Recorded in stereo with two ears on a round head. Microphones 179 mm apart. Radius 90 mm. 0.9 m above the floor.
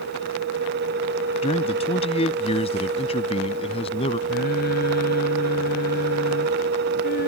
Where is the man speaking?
30° left (ahead or behind).